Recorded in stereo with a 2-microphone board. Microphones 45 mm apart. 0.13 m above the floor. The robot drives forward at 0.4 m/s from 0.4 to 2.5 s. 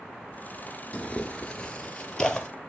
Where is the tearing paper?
30° left (ahead or behind), 0.7 m; by 2.5 s 15° left (ahead or behind), 1.2 m.